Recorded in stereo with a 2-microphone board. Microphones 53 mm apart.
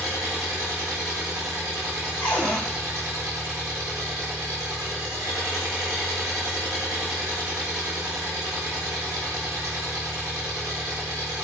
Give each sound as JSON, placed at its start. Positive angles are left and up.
{"t": 0.0, "sound": "an engine running", "side_deg": -80, "distance_m": 0.8}
{"t": 2.2, "sound": "a cupboard door", "side_deg": 60, "distance_m": 1.3}